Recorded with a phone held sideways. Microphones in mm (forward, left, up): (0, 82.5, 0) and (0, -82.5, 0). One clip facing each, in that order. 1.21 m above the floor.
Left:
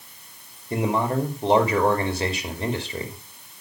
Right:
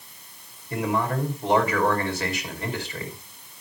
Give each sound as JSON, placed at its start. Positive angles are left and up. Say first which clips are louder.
{"t": 0.7, "sound": "a man speaking", "louder": "left 2 dB", "side_deg": 30, "distance_m": 2.5}